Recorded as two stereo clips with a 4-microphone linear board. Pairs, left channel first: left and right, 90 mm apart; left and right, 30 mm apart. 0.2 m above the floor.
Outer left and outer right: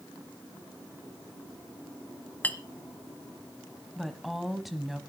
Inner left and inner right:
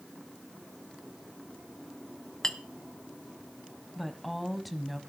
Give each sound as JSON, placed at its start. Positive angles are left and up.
{"t": 2.4, "sound": "a clink", "side_deg": 15, "distance_m": 0.9}
{"t": 4.0, "sound": "a woman speaking", "side_deg": 0, "distance_m": 1.0}